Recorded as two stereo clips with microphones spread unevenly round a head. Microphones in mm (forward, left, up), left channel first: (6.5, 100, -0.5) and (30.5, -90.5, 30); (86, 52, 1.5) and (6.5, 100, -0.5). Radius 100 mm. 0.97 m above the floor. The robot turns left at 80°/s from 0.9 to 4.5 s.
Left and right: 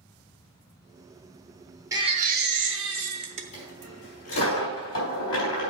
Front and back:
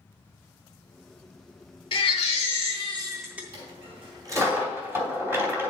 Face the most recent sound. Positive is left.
turn(degrees=80)